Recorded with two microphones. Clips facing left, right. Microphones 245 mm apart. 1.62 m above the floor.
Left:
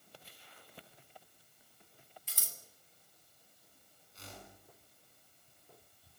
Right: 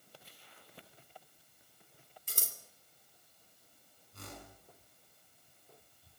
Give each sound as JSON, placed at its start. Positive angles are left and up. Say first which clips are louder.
{"t": 2.3, "sound": "scissors", "louder": "right 7 dB", "side_deg": -50, "distance_m": 3.0}
{"t": 4.1, "sound": "a whoosh", "louder": "right 3 dB", "side_deg": -55, "distance_m": 8.0}